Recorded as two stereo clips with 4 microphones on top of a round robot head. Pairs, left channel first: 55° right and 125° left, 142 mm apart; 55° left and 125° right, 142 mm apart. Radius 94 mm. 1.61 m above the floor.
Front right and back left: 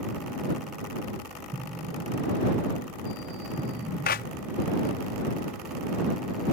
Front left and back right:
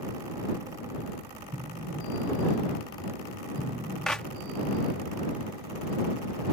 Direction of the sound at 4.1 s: 30° right.